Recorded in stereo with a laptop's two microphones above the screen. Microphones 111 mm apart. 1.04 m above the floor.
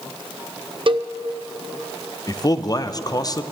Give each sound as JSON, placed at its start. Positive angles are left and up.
{"t": 0.9, "sound": "a cowbell", "side_deg": -50, "distance_m": 0.5}
{"t": 2.3, "sound": "a man speaking", "side_deg": 35, "distance_m": 0.5}